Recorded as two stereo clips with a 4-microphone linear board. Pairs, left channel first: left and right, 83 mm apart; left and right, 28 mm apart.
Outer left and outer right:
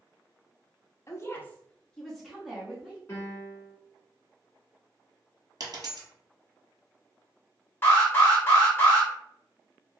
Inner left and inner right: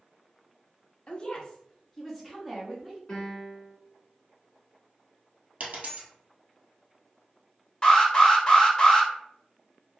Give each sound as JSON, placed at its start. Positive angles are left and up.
{"t": 1.1, "sound": "a woman speaking", "side_deg": 35, "distance_m": 0.6}
{"t": 3.1, "sound": "a piano", "side_deg": 30, "distance_m": 1.1}
{"t": 5.6, "sound": "a dropped coin", "side_deg": -60, "distance_m": 1.3}
{"t": 7.8, "sound": "an alarm", "side_deg": 30, "distance_m": 1.0}